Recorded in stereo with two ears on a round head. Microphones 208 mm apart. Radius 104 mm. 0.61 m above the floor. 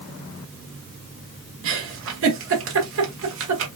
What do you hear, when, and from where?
1.6 s a giggle: 60° right (ahead or behind), 1.3 m